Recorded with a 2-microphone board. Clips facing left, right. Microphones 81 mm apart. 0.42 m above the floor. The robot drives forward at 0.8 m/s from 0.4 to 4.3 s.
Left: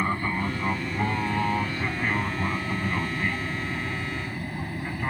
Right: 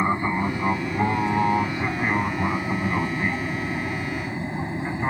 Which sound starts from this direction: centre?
An aircraft, at 0.0 s.